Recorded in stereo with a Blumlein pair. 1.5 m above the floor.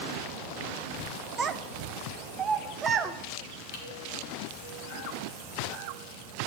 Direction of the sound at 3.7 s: 50° left.